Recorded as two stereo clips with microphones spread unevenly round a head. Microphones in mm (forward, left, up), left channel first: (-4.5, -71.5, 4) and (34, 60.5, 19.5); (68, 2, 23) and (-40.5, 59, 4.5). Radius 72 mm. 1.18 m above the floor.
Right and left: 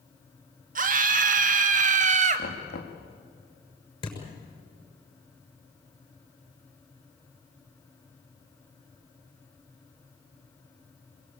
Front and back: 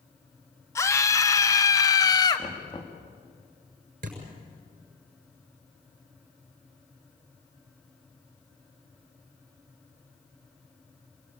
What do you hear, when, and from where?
0.8 s a scream: 40° left, 2.5 m; by 2.5 s 35° left, 1.7 m
2.4 s knocking: 90° right, 2 m
4.0 s a thud: 165° right, 6.5 m